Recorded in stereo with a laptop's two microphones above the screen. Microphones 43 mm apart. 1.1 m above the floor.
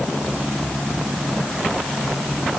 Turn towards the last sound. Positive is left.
No sound to turn to.